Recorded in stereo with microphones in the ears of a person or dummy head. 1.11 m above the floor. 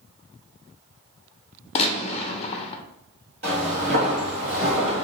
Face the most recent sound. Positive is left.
turn(degrees=-40)  # may be behind; listen again after turning